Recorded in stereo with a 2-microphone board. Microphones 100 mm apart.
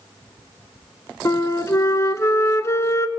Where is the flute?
30° left (ahead or behind), 0.5 m.